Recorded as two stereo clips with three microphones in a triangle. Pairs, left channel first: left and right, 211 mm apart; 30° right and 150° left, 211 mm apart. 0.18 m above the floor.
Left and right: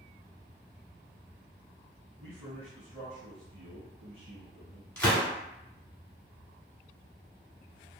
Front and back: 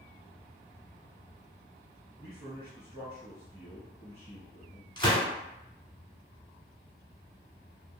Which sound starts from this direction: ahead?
A gunshot, at 5.0 s.